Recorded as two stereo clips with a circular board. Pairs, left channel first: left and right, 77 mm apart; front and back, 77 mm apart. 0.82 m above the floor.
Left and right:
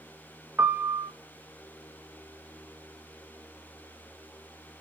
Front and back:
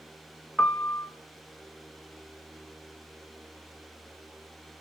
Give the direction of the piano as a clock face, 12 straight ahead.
2 o'clock.